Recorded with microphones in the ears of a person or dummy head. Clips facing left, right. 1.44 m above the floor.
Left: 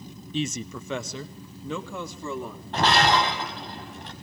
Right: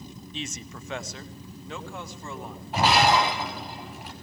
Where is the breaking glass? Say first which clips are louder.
Right 1 dB; 10° right (ahead or behind), 4.5 m.